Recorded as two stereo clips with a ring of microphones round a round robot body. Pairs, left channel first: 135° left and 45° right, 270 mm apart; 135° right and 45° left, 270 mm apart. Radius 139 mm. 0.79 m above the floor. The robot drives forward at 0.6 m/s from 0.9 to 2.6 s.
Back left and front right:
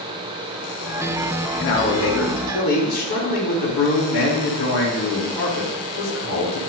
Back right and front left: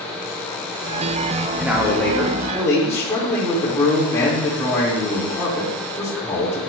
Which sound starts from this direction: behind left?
A man speaking, at 1.6 s.